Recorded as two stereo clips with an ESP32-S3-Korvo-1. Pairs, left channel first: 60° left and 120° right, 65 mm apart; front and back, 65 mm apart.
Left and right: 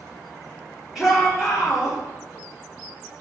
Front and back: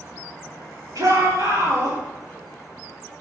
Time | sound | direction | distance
0.9 | a shout | 145° left | 4.5 m